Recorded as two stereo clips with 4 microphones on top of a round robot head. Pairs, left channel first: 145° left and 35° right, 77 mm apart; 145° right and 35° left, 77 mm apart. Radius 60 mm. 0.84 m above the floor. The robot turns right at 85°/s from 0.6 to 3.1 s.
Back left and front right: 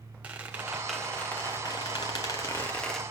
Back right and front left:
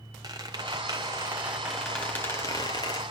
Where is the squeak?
25° left, 0.5 m; by 3.0 s 130° right, 0.5 m.